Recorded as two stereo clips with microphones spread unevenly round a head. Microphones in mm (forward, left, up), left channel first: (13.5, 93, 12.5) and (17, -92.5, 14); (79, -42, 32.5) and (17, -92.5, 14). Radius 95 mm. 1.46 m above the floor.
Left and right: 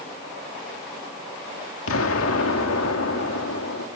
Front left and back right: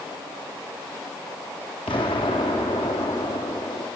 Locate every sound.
1.9 s an explosion: 90° left, 2.5 m